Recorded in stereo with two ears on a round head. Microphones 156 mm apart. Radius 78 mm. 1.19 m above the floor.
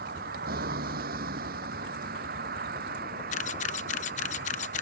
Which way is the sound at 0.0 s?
55° right (ahead or behind).